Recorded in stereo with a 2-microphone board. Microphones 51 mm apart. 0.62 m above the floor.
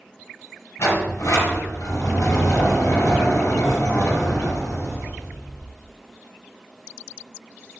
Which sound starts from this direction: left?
A sliding door, at 0.8 s.